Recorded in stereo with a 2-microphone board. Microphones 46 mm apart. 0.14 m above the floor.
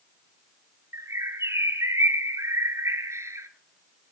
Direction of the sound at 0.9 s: 70° right (ahead or behind).